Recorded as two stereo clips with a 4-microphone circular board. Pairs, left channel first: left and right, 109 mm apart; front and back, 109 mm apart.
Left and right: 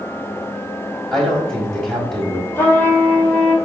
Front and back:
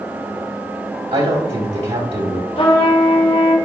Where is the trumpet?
25° left, 1.8 m.